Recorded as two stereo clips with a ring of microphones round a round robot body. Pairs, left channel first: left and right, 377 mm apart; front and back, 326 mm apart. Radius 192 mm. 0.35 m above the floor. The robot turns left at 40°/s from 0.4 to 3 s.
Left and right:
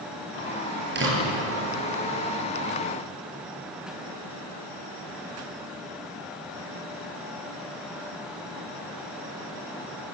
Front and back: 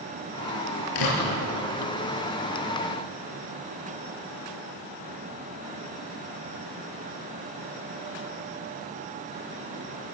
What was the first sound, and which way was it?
A door slam, 25° right.